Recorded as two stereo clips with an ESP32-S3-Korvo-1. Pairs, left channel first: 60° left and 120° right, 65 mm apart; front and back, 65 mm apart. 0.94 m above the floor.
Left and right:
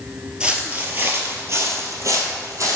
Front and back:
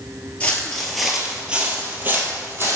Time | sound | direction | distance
0.4 | footsteps | 55° right | 1.1 m